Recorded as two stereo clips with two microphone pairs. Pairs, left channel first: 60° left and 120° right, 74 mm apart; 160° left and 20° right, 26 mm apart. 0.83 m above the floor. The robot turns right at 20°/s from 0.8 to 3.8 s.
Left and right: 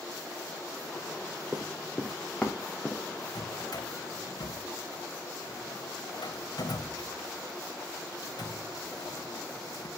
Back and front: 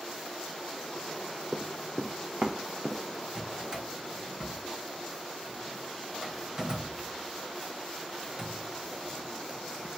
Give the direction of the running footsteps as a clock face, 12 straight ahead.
1 o'clock.